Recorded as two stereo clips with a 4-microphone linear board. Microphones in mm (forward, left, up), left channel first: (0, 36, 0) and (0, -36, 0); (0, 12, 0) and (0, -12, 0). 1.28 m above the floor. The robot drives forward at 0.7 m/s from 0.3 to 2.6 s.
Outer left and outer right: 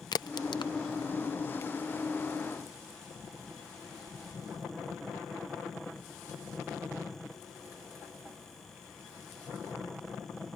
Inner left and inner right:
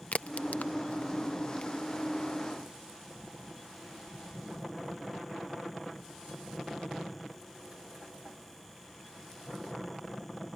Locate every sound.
0.1 s a crack: 60° left (ahead or behind); by 1.7 s 35° left (ahead or behind)